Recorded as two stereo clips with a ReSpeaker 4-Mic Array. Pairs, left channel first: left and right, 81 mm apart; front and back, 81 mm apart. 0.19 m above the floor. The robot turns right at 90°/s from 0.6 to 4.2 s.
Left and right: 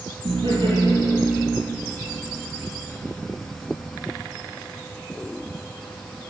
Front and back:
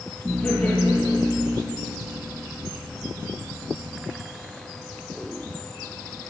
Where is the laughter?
75° right, 5 m; by 1.6 s 15° left, 5 m.